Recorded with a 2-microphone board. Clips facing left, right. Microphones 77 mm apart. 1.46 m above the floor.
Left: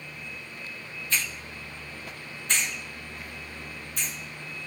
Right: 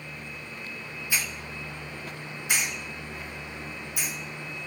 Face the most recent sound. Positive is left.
turn(degrees=-10)  # may be behind; listen again after turning